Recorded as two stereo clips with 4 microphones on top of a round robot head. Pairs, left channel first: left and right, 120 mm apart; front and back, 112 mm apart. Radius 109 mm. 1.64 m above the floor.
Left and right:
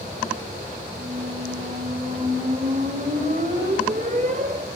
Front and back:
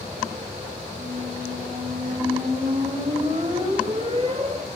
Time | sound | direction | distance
1.0 | a squeak | 125° right | 1.8 m